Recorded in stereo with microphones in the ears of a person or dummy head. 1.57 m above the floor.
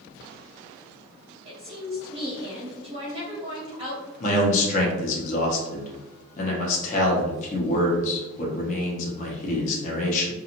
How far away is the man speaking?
About 0.8 m.